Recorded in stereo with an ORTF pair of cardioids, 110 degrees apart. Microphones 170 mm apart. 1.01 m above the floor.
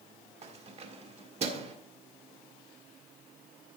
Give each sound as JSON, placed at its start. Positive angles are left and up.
{"t": 0.4, "sound": "keys jangling", "azimuth_deg": -40, "distance_m": 1.7}